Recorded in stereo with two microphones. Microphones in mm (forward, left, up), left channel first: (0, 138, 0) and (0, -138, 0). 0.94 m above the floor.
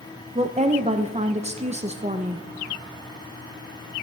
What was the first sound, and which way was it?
A woman speaking, 25° right (ahead or behind).